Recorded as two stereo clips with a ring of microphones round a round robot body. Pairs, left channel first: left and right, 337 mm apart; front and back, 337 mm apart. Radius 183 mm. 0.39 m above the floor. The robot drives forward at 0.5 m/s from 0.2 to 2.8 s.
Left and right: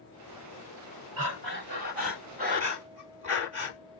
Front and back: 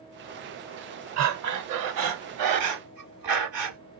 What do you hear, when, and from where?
1.2 s breathing: 140° right, 0.8 m; by 3.8 s 160° right, 1.5 m